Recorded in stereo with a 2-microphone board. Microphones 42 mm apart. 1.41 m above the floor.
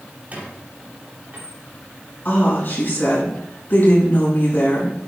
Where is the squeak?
40° right (ahead or behind), 3.5 m.